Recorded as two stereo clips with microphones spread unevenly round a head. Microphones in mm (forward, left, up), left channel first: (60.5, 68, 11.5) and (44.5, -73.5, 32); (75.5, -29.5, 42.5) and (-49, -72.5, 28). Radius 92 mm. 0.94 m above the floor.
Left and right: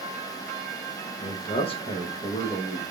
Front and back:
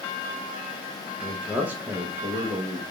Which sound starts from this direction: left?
A man speaking, at 1.2 s.